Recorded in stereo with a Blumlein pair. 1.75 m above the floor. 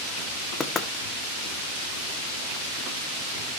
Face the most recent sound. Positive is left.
turn(degrees=15)